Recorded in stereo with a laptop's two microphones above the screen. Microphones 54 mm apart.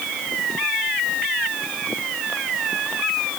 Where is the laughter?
No laughter in this recording.